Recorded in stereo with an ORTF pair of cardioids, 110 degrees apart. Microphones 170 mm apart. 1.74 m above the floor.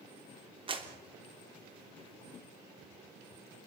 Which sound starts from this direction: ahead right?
A clap, at 0.7 s.